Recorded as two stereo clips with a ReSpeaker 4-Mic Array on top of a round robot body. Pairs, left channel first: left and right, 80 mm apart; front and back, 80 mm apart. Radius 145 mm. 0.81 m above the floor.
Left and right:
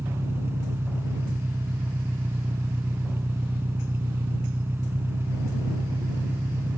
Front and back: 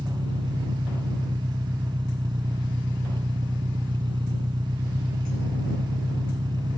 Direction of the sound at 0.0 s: 150° right.